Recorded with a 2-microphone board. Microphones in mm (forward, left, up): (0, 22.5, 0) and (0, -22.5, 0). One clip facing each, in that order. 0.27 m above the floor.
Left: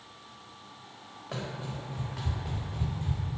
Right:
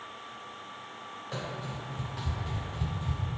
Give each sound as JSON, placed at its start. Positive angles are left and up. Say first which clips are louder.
{"t": 1.3, "sound": "running footsteps", "louder": "left 1 dB", "side_deg": 80, "distance_m": 1.6}